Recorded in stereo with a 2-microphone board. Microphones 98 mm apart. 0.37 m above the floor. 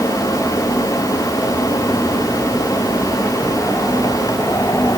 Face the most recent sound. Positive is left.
No sound to turn to.